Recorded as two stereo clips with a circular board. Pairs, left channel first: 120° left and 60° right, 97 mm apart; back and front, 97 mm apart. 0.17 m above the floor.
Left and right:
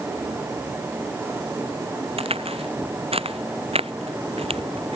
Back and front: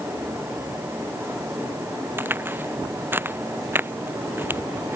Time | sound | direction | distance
2.2 | a crack | 65° right | ?